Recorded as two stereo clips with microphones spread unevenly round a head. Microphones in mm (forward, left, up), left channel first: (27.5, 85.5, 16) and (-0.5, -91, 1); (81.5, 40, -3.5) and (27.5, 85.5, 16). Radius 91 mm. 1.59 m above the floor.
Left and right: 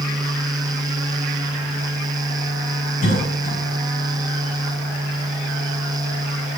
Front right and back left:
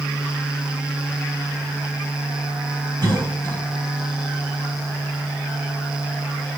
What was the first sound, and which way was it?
A cough, 130° left.